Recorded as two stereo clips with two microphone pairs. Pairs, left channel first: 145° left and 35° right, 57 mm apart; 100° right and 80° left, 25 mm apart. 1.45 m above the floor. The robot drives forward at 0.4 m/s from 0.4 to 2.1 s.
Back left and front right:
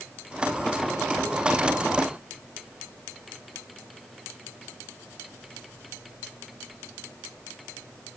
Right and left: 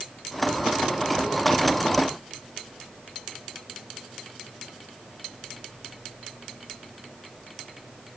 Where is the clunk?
No clunk in this recording.